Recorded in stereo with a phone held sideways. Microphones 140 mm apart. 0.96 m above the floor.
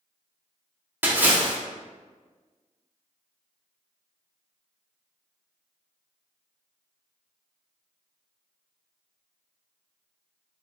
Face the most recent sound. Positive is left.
turn(degrees=-15)  # may be behind; listen again after turning